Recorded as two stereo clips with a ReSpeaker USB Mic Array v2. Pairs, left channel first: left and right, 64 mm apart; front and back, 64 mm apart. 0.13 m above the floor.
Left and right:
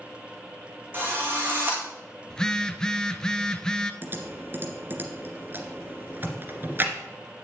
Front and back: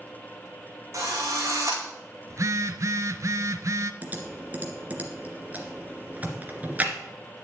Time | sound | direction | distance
0.9 | a drill | 145° right | 4.5 m
2.3 | a phone buzzing | 165° left | 0.8 m
4.0 | typing on a keyboard | 130° right | 2 m